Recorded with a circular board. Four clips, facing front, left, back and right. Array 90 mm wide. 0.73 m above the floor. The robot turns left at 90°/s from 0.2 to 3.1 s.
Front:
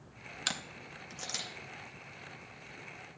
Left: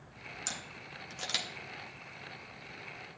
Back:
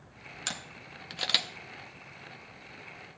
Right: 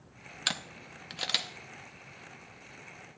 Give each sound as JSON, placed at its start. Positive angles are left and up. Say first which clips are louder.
{"t": 0.5, "sound": "a camera shutter", "louder": "right 10 dB, front 1 dB", "azimuth_deg": -80, "distance_m": 0.8}